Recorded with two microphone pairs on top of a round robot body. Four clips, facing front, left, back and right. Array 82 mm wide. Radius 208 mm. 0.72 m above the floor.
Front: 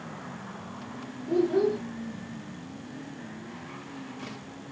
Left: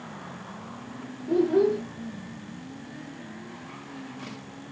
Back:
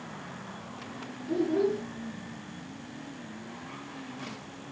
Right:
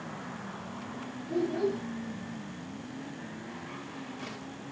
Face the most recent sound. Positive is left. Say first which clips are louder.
# left 8 dB, front 3 dB
turn(degrees=60)